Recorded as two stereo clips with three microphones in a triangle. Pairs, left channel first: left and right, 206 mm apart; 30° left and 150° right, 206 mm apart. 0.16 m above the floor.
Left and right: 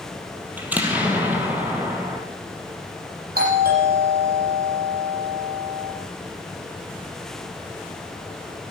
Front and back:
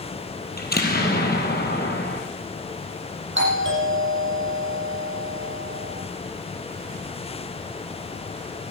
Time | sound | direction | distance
0.6 | an explosion | 10° right | 3.5 m
3.4 | a doorbell | 130° right | 7.5 m